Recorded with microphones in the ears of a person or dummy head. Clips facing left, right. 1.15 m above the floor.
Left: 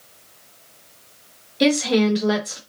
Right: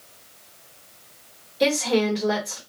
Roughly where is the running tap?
I don't hear a running tap.